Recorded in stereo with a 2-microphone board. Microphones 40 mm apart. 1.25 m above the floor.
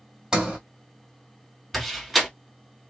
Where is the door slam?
Centre (ahead or behind), 1.6 m.